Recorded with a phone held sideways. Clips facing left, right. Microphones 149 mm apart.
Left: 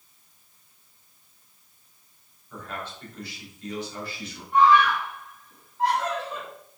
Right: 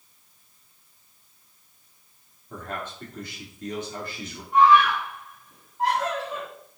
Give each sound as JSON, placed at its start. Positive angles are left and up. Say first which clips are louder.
{"t": 2.5, "sound": "a man speaking", "louder": "right 2 dB", "side_deg": -50, "distance_m": 2.5}
{"t": 4.5, "sound": "a scream", "louder": "right 1 dB", "side_deg": -10, "distance_m": 3.5}